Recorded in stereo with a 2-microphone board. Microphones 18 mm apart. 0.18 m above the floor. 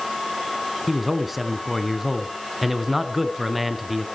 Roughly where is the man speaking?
Centre.